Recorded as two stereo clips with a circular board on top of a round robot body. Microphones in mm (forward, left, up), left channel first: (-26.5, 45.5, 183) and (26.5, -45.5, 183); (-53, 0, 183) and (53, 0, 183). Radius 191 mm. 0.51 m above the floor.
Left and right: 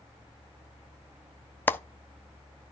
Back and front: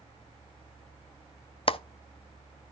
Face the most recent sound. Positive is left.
turn(degrees=-170)